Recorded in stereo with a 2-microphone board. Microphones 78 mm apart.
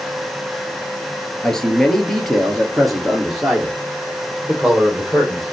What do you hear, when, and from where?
1.4 s a man speaking: 5° left (ahead or behind), 2 m; by 5.5 s 5° right (ahead or behind), 4 m